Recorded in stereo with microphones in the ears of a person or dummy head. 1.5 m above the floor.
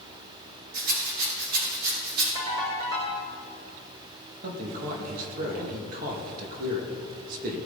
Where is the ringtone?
30° right (ahead or behind), 5 m.